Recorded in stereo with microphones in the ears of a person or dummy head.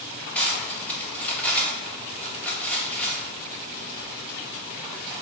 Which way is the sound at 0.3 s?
10° left (ahead or behind).